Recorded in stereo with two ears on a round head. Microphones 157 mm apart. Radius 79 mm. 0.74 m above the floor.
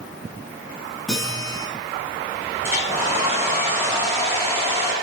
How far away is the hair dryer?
About 6.5 m.